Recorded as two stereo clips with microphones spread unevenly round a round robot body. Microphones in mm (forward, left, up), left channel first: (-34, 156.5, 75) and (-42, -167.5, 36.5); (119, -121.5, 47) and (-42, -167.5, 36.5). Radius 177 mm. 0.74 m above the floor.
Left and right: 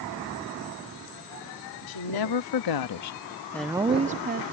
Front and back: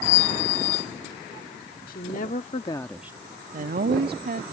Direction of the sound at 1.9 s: 65° left.